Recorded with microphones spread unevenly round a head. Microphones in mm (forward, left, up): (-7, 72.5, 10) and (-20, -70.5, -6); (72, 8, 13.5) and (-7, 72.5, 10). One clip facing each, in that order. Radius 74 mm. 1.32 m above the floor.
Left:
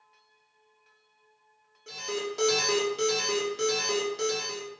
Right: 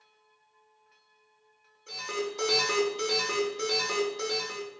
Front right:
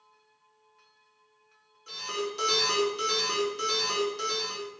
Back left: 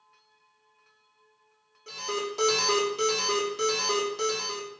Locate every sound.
1.9 s an alarm: 105° left, 4 m